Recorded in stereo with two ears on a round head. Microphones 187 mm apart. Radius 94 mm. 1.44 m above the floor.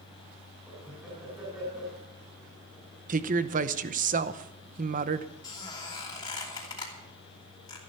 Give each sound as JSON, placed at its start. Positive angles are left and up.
{"t": 0.7, "sound": "laughter", "side_deg": -5, "distance_m": 5.5}
{"t": 3.1, "sound": "a woman speaking", "side_deg": -40, "distance_m": 0.8}
{"t": 5.4, "sound": "a squeak", "side_deg": 20, "distance_m": 3.0}